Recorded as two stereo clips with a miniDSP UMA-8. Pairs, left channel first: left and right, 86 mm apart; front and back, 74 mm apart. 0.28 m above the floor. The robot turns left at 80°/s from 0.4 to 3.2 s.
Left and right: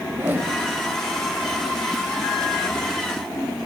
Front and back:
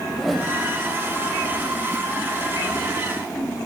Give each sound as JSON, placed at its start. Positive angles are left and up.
{"t": 0.1, "sound": "a whoosh", "azimuth_deg": -85, "distance_m": 1.0}